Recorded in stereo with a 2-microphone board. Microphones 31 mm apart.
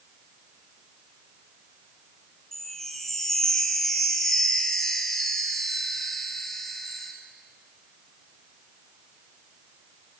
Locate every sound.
2.5 s a chime: 15° left (ahead or behind), 0.7 m